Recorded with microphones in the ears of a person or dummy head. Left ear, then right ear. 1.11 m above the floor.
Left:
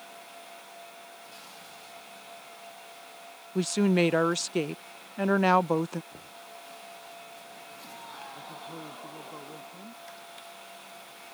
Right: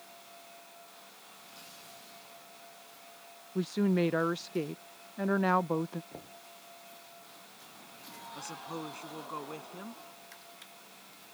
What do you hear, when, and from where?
3.5 s a woman speaking: 30° left (ahead or behind)
6.1 s knocking: 90° right
8.3 s a woman speaking: 55° right (ahead or behind)